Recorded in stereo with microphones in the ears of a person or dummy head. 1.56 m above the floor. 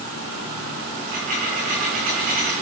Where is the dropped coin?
40° right (ahead or behind), 3 m.